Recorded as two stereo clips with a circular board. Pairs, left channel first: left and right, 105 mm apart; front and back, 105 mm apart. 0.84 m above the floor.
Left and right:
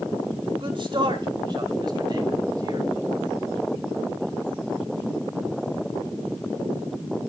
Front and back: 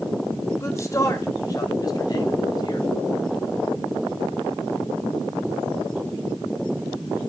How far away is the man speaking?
About 2.5 m.